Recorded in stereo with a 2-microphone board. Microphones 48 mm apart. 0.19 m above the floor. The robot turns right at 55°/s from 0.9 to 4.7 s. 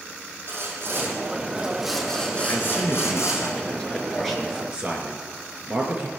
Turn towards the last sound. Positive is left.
turn(degrees=-155)